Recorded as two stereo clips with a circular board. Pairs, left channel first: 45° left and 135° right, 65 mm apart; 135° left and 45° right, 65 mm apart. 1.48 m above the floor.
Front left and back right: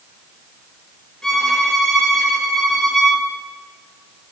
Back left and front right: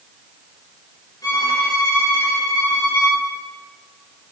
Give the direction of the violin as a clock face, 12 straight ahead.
8 o'clock.